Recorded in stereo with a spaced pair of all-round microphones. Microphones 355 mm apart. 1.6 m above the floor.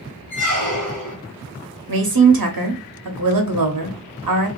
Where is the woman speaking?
75° right (ahead or behind), 0.6 m.